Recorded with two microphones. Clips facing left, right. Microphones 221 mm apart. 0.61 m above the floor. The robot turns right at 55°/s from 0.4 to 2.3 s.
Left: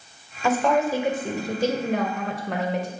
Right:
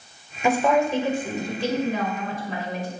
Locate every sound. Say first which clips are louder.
0.4 s a woman speaking: right 1 dB; 20° right, 2 m; by 2.9 s 85° left, 2 m